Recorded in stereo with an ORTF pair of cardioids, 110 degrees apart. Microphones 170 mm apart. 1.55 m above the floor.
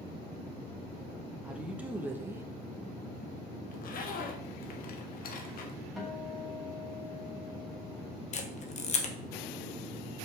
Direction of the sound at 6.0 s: Straight ahead.